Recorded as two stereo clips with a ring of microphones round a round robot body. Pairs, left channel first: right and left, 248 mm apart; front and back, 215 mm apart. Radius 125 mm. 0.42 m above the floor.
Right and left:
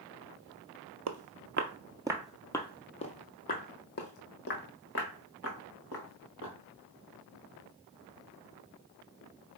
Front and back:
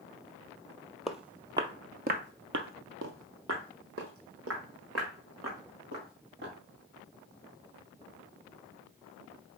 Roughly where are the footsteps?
Left.